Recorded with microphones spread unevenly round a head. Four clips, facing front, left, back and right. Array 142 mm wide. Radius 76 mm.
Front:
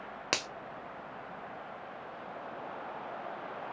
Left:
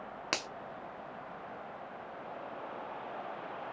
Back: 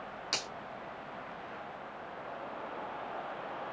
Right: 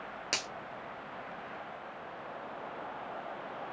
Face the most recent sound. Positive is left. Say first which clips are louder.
# left 3 dB, front 5 dB
turn(degrees=5)